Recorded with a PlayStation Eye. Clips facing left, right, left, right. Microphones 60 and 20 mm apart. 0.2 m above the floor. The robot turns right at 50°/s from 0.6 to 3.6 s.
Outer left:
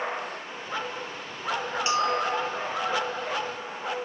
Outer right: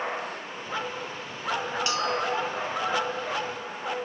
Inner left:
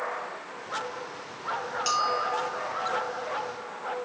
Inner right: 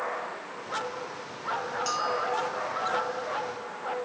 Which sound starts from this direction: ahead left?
A bell, at 1.9 s.